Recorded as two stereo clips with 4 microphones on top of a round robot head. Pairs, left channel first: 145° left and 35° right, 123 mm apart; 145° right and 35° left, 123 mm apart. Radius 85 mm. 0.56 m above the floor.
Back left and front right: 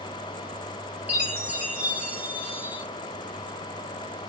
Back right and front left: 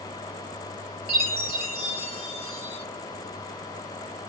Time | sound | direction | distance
1.1 | a chime | 40° left | 1.8 m